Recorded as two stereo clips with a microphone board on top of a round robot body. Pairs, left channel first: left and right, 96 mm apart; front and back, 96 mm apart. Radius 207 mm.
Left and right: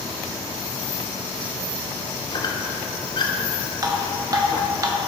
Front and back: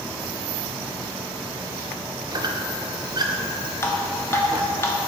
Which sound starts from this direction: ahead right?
Dripping, at 3.8 s.